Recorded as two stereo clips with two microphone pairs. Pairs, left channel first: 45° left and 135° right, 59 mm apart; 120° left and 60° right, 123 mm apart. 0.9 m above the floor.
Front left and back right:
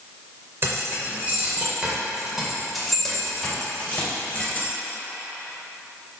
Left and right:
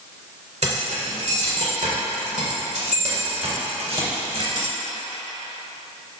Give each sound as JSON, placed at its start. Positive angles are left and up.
{"t": 0.6, "sound": "keys jangling", "azimuth_deg": -85, "distance_m": 2.0}